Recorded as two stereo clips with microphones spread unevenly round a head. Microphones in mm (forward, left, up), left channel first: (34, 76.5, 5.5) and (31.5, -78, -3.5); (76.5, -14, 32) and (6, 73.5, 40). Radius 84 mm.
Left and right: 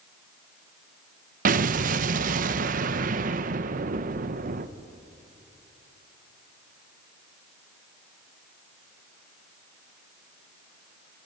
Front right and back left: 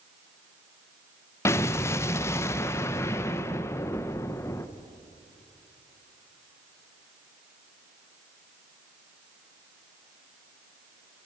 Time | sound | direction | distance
1.4 | an explosion | 115° right | 0.7 m